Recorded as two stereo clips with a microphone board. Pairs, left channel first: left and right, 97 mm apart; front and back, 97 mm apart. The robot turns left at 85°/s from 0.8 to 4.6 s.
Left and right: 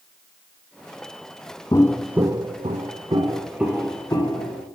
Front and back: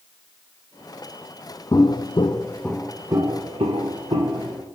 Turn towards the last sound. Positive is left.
turn(degrees=100)